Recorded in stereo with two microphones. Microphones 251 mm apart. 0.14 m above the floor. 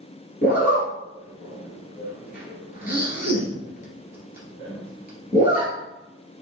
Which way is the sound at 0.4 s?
35° left (ahead or behind).